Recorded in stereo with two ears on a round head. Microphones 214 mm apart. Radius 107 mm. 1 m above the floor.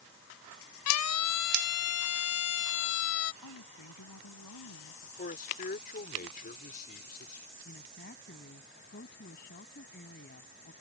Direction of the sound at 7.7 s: 40° left (ahead or behind).